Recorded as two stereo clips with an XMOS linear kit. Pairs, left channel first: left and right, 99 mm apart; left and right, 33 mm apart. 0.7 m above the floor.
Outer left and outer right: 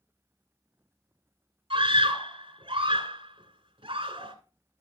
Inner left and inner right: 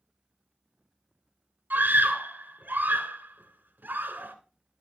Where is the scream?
60° right (ahead or behind), 2.5 m.